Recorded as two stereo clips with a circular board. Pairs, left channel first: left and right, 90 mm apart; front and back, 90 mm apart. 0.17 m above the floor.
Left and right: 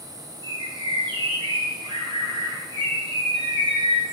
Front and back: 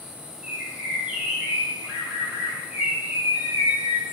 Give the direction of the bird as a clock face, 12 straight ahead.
3 o'clock.